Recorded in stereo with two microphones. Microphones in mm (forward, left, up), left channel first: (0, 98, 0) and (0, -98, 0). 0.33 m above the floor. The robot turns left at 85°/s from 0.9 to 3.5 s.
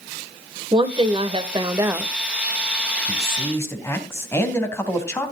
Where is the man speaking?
50° left, 2.5 m; by 5.3 s 15° left, 2.5 m.